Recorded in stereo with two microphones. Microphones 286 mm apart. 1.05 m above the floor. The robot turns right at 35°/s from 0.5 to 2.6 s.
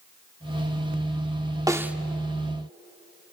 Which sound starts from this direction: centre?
A snare drum, at 1.7 s.